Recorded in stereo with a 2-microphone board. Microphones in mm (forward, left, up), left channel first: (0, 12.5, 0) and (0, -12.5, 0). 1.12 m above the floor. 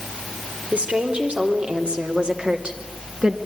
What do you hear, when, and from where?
0.7 s a woman speaking: 55° right (ahead or behind), 4 m; by 3.4 s 35° right (ahead or behind), 2 m